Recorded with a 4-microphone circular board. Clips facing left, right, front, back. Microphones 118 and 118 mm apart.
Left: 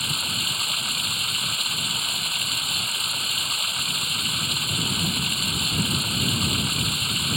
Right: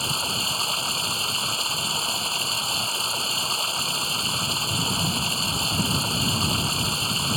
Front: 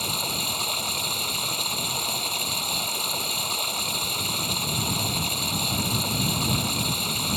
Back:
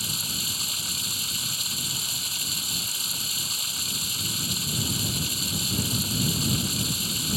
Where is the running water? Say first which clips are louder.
Right 4 dB, front 7 dB; 30° right.